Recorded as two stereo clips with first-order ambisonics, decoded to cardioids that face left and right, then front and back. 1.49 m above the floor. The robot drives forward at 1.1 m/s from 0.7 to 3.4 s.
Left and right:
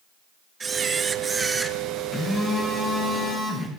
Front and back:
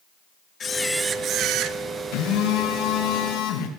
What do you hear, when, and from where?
0.6 s a camera shutter: 40° right, 0.6 m; by 1.8 s 170° right, 1.1 m
2.1 s a phone buzzing: 10° left, 5.5 m